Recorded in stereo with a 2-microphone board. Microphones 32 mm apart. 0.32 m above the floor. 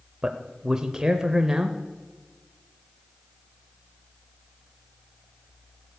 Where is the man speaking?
20° right (ahead or behind), 0.8 m.